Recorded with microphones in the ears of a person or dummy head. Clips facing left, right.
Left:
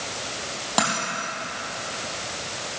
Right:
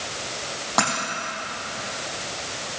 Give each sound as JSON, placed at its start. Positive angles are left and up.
{"t": 0.8, "sound": "a dropped coin", "side_deg": 5, "distance_m": 4.5}